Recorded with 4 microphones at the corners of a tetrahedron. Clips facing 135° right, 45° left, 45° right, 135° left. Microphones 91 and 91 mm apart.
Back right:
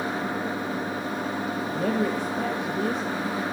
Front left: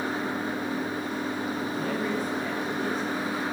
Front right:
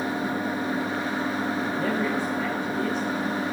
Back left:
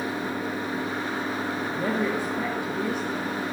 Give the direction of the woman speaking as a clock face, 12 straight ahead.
5 o'clock.